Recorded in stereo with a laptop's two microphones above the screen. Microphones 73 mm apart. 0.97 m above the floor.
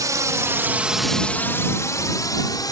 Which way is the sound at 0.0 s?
55° right (ahead or behind).